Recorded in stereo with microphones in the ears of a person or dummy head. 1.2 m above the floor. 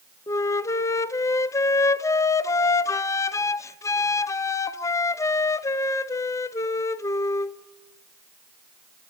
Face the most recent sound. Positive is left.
turn(degrees=15)  # may be behind; listen again after turning